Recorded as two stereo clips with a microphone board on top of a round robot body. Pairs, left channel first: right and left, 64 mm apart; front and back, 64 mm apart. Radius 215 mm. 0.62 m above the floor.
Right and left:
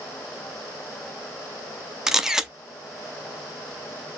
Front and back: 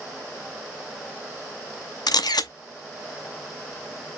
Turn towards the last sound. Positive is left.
turn(degrees=5)